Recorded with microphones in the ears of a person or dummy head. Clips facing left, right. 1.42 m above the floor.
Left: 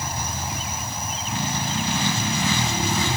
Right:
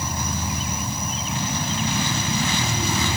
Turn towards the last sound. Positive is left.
turn(degrees=-80)